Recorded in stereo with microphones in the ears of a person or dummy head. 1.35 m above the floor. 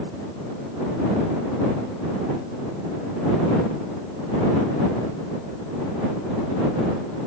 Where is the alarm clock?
I don't hear an alarm clock.